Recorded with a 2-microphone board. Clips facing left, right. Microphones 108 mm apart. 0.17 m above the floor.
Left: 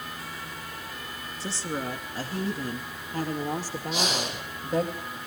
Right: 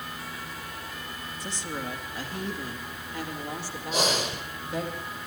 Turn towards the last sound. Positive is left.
turn(degrees=-45)  # may be behind; listen again after turning